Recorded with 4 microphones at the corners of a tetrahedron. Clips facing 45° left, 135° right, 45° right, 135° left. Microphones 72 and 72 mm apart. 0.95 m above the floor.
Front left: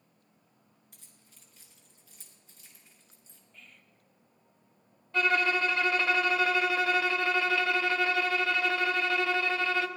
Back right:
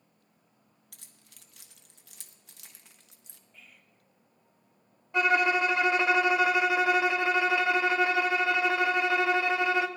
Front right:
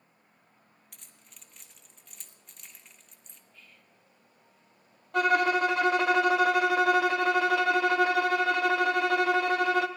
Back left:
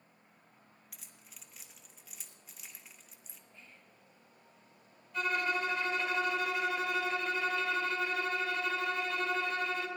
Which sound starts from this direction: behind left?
Whispering, at 3.5 s.